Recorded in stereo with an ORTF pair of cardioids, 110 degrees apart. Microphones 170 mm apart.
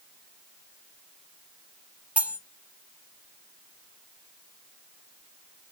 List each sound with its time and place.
2.2 s cutlery clinking: 5° right, 0.6 m